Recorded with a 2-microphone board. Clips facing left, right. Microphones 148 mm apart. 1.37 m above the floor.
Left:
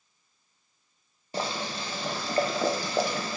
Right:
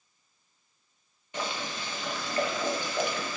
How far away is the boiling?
About 0.5 m.